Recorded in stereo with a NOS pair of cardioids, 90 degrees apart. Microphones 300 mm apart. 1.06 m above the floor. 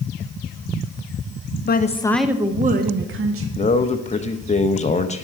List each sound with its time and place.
1.6 s a woman speaking: 35° left, 0.8 m; by 3.5 s 50° right, 1.4 m
3.6 s a man speaking: 20° left, 0.8 m